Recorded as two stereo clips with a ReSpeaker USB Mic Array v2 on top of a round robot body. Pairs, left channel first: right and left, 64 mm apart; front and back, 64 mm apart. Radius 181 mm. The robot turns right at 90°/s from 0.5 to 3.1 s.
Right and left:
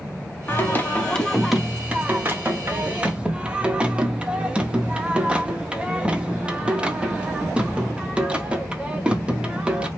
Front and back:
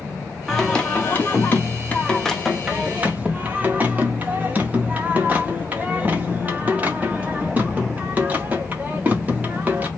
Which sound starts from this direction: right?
Singing, at 0.5 s.